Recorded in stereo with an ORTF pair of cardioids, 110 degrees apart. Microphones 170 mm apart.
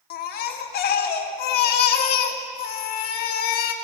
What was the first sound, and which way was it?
A baby crying, 65° left.